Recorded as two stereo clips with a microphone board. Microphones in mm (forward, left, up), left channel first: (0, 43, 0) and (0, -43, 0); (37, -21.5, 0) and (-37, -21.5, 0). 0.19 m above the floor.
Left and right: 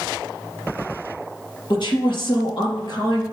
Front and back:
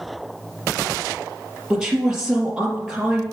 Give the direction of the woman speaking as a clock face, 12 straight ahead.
9 o'clock.